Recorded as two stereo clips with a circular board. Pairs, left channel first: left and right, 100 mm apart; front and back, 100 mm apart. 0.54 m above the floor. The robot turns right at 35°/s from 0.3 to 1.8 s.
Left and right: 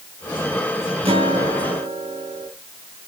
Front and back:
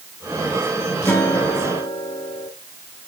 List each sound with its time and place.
1.1 s a guitar: 70° right, 2.5 m; by 2.5 s 45° right, 2.5 m